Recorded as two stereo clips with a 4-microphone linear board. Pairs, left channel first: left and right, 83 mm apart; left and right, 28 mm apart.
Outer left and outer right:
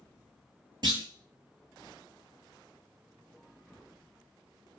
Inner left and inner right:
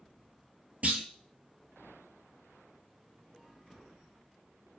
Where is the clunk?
60° right (ahead or behind), 0.5 m.